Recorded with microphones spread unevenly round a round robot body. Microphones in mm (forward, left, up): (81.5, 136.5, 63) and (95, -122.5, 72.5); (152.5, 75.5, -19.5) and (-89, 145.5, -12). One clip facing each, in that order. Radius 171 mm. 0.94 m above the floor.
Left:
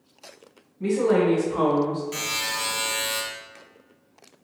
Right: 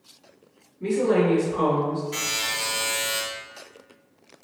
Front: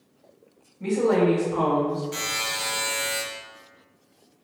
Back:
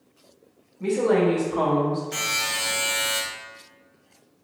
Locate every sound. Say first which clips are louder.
0.8 s a woman speaking: left 1 dB, even; 85° left, 1.8 m; by 2.0 s 110° left, 1.2 m
2.1 s a buzzer: even, front 1 dB; 115° left, 1.8 m